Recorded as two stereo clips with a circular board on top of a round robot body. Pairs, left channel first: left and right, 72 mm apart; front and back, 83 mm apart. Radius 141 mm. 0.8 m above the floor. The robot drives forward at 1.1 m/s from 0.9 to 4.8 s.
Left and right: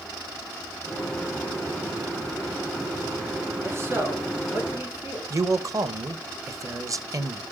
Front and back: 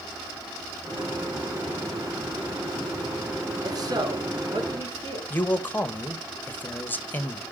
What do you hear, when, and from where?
3.6 s a man speaking: 140° right, 1.9 m; by 5.2 s 155° right, 3 m
5.3 s a man speaking: 65° right, 1.1 m